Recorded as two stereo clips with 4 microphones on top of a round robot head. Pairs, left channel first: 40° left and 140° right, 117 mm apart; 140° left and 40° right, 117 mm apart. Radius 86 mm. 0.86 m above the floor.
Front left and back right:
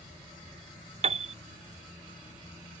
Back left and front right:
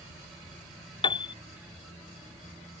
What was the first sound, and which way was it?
A piano, 175° right.